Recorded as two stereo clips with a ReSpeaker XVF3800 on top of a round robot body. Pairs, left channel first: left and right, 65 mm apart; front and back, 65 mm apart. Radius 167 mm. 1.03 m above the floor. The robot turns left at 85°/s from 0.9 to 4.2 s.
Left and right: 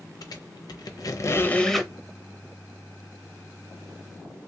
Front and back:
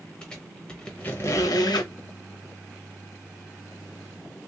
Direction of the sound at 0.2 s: 80° left.